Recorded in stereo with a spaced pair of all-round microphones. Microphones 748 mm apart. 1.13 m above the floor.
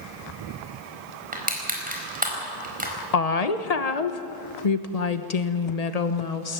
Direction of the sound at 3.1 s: 55° left (ahead or behind).